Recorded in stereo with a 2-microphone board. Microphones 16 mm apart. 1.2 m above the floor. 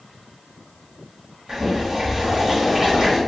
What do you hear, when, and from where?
1.5 s boiling: 45° right (ahead or behind), 1.2 m